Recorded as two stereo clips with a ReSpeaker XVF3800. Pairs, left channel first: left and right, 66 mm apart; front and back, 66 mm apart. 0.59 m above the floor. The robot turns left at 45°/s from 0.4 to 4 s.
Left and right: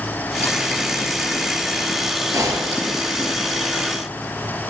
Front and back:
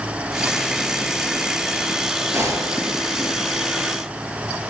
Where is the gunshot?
130° right, 9 m; by 2.9 s 155° right, 9 m.